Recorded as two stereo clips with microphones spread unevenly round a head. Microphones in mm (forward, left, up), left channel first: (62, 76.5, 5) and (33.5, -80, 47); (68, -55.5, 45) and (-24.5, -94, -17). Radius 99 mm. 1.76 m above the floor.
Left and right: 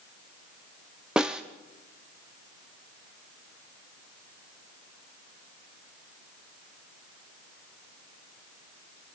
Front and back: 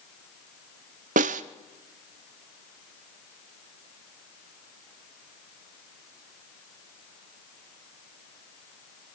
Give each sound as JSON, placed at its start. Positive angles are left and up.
{"t": 1.2, "sound": "a snare drum", "azimuth_deg": 180, "distance_m": 0.8}